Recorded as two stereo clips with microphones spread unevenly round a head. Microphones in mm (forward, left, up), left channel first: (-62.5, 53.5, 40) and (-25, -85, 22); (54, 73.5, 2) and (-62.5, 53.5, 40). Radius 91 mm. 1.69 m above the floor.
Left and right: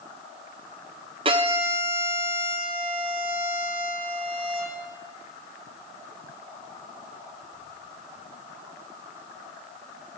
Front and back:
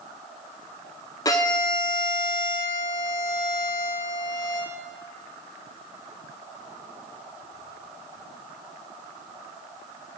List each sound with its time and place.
1.2 s a violin: 65° right, 0.5 m